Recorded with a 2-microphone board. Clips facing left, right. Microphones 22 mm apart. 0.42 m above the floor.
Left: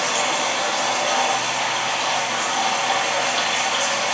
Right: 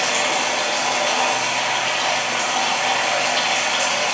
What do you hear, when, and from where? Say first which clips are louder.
0.0 s running water: right 1 dB; 85° right, 6.5 m